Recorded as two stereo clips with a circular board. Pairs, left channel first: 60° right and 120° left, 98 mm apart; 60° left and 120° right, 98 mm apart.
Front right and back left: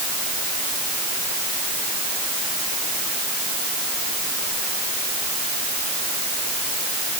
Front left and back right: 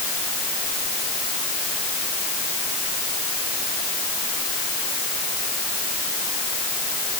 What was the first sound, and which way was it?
Only background noise.